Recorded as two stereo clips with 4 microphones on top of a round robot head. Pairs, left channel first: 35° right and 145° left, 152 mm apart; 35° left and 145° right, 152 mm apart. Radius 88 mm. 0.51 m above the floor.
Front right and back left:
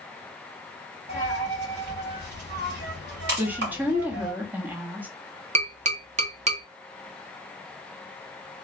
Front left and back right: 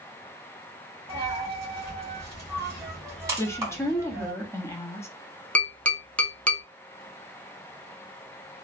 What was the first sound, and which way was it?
A dropped coin, 145° left.